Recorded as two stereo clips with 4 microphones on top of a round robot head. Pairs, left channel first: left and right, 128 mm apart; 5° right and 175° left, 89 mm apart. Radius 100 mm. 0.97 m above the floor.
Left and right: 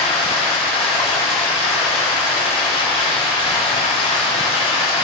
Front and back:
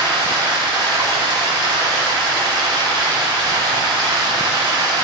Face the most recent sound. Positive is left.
turn(degrees=135)